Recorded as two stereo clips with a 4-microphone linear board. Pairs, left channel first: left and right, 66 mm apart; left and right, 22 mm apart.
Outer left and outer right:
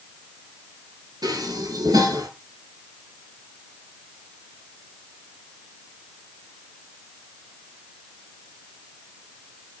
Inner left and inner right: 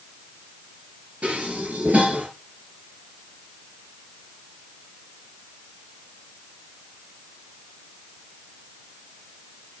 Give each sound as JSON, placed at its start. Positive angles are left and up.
{"t": 1.2, "sound": "dishes clattering", "side_deg": -85, "distance_m": 6.0}